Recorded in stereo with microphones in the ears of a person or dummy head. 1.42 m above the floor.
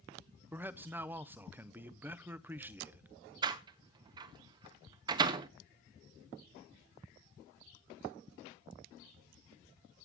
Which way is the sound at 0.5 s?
10° right (ahead or behind).